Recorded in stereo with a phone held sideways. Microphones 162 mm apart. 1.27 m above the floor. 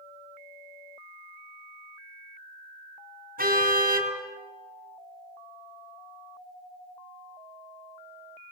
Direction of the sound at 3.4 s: 65° right (ahead or behind).